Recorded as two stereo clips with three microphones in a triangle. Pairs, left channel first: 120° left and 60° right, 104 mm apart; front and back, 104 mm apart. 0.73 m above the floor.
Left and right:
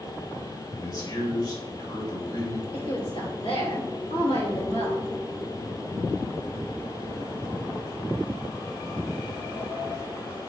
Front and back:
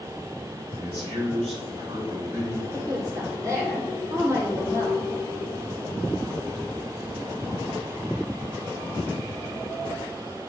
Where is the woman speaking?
125° left, 2.5 m.